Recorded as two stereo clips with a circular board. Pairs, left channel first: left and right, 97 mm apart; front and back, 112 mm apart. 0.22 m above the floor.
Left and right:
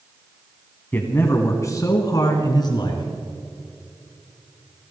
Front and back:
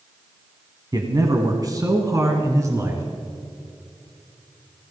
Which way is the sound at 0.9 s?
150° left.